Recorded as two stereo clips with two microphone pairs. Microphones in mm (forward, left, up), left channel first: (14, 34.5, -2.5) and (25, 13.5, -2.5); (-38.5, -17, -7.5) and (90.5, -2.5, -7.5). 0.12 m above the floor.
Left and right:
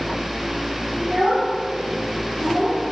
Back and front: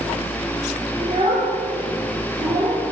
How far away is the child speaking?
About 7 m.